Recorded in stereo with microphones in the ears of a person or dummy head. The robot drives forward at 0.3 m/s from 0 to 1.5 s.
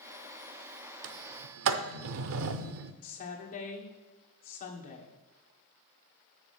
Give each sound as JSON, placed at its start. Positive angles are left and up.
{"t": 1.0, "sound": "a sliding door", "side_deg": -65, "distance_m": 0.6}
{"t": 3.0, "sound": "a woman speaking", "side_deg": 45, "distance_m": 1.5}